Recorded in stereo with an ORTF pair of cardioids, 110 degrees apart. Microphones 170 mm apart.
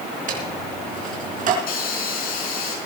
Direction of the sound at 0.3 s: 55° right.